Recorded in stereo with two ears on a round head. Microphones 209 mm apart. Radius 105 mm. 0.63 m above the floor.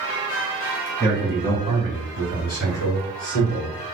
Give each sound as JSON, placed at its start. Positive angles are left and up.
{"t": 1.0, "sound": "a man speaking", "side_deg": 10, "distance_m": 1.4}